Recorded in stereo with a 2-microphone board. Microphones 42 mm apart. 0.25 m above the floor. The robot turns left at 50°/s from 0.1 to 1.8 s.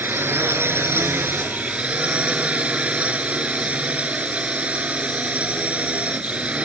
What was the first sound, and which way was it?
A drone, 60° right.